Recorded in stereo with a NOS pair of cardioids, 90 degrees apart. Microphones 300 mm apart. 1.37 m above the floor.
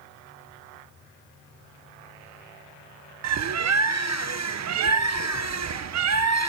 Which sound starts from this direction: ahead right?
A bird, at 3.2 s.